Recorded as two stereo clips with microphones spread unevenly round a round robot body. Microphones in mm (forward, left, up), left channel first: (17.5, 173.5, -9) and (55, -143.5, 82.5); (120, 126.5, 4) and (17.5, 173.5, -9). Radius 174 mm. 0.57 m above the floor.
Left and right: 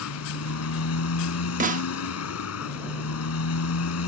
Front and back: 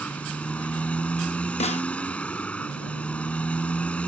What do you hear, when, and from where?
0.0 s a motorcycle: 55° left
1.6 s a snare drum: 10° right